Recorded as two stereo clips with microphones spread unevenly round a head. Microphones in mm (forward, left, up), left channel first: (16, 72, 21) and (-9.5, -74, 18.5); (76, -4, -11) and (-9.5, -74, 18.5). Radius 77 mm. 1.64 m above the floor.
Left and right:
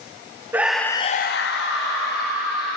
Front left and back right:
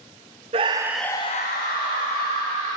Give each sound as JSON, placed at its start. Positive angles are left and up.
{"t": 0.5, "sound": "a scream", "azimuth_deg": -175, "distance_m": 0.7}